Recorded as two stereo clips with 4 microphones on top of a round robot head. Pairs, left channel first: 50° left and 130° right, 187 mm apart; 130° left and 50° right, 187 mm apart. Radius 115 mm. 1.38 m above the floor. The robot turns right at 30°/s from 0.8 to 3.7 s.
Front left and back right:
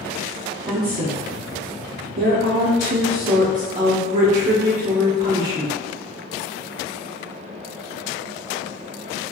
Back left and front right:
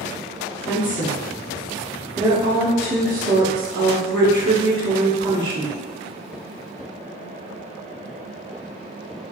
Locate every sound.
0.7 s a woman speaking: 165° right, 0.9 m; by 5.7 s 80° right, 0.9 m